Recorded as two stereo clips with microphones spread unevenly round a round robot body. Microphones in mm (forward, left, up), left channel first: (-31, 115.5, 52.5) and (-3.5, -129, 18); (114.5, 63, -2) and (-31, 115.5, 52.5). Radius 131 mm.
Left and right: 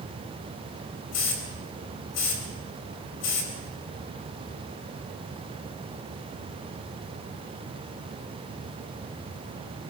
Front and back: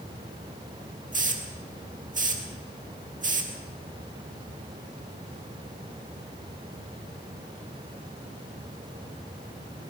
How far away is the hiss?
About 4 m.